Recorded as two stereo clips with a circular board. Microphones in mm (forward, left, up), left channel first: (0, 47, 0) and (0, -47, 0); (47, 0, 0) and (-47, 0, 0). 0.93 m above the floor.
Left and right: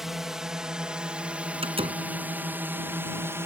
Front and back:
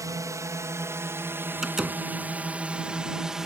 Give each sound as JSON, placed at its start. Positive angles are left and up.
{"t": 0.0, "sound": "a drone", "azimuth_deg": -175}
{"t": 1.6, "sound": "a door slam", "azimuth_deg": -95}